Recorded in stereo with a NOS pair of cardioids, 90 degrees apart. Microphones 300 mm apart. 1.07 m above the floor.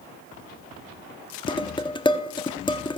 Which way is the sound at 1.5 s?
15° left.